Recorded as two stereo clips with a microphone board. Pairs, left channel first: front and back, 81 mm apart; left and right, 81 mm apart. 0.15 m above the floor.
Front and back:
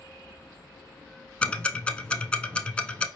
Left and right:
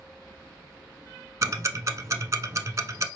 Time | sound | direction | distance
1.4 | ticking | 70° right | 0.7 m